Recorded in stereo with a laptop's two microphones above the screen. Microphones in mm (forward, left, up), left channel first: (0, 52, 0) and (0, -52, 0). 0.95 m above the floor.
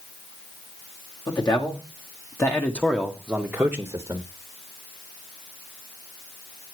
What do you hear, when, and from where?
1.3 s a man speaking: 45° left (ahead or behind), 2 m; by 4.3 s 35° right (ahead or behind), 1.4 m